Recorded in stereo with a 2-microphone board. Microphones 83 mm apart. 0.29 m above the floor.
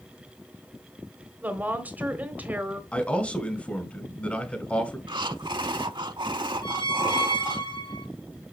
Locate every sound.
1.4 s a woman speaking: 20° right (ahead or behind), 1.3 m
2.9 s a man speaking: 15° left (ahead or behind), 1.7 m
5.1 s breathing: 70° right (ahead or behind), 0.6 m
6.6 s a squeak: 85° left, 1.4 m